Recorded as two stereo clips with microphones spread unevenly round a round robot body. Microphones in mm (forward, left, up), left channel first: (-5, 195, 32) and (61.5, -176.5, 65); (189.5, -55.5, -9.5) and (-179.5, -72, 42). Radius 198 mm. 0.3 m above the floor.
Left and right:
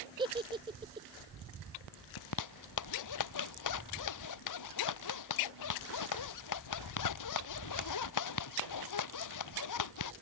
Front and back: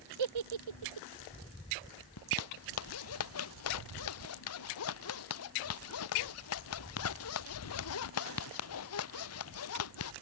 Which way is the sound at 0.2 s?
160° right.